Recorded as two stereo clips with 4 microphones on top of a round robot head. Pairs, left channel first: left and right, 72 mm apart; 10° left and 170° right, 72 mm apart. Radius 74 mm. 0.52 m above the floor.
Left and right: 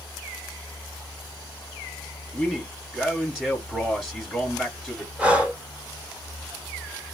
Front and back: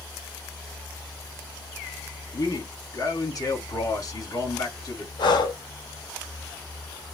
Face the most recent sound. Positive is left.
turn(degrees=-15)